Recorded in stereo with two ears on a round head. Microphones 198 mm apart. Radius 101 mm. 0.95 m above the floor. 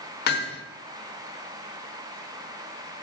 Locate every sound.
0.3 s hammering: 50° left (ahead or behind), 1.3 m